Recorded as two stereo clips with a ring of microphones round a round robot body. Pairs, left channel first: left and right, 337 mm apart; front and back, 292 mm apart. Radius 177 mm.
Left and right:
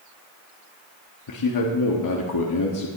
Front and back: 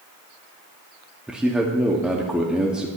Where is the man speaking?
95° left, 1.4 m.